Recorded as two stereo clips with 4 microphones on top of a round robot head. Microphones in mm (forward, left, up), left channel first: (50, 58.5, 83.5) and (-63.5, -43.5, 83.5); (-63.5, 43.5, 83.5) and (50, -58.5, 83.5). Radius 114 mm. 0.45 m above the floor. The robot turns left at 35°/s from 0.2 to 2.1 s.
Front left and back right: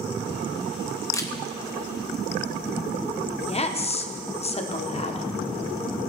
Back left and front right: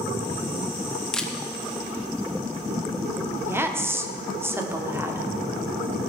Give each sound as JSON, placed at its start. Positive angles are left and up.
{"t": 1.1, "sound": "a camera shutter", "azimuth_deg": 65, "distance_m": 1.4}
{"t": 3.5, "sound": "a woman speaking", "azimuth_deg": 25, "distance_m": 1.3}